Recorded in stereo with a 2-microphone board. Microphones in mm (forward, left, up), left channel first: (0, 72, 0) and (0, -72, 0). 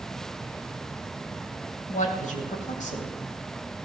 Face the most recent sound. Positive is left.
turn(degrees=60)  # may be behind; listen again after turning